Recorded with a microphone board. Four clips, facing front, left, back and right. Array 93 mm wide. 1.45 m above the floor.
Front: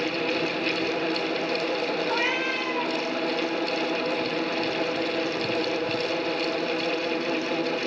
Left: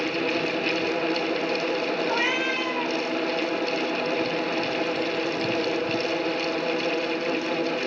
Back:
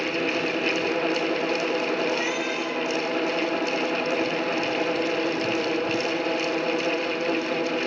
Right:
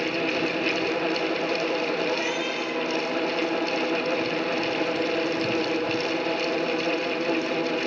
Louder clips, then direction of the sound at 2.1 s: Left 2 dB, even; 50° left.